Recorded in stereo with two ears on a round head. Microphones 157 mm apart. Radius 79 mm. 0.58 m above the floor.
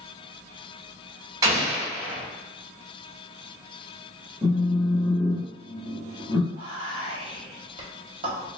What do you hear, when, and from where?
1.4 s an explosion: 20° right (ahead or behind), 1.0 m
4.4 s a phone buzzing: 10° right (ahead or behind), 0.8 m
6.5 s whispering: 30° right (ahead or behind), 0.9 m